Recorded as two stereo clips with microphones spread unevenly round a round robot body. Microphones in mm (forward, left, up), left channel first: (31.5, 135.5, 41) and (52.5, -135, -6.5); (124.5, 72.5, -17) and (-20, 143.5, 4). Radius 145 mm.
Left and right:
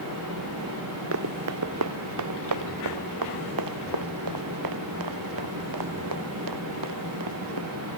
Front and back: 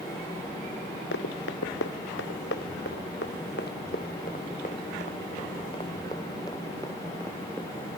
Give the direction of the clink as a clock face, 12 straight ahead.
No clink in this recording.